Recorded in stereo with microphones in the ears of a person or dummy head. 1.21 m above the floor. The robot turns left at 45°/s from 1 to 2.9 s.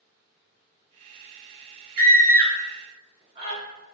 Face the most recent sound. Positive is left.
turn(degrees=-35)  # may be behind; listen again after turning